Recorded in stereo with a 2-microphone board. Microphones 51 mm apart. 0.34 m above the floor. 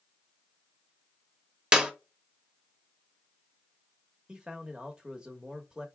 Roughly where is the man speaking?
Centre.